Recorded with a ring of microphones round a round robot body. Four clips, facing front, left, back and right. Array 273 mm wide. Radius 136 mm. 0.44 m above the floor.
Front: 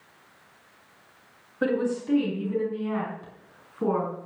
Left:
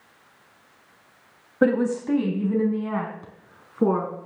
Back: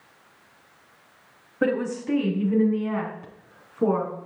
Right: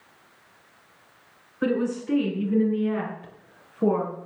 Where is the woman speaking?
100° left, 3 m; by 4.1 s 95° left, 6 m.